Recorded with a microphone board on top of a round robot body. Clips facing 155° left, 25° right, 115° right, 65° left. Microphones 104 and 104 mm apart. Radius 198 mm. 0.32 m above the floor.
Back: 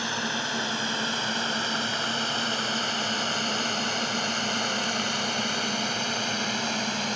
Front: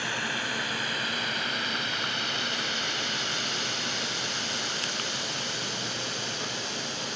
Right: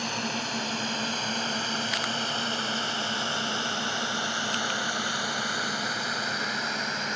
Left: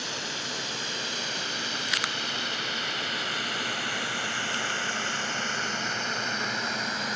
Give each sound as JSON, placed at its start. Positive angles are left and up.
{"t": 0.0, "sound": "a drone", "azimuth_deg": -140}